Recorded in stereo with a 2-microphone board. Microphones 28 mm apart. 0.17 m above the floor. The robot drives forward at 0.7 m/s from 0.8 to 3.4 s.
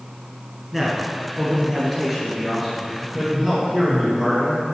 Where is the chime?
I don't hear a chime.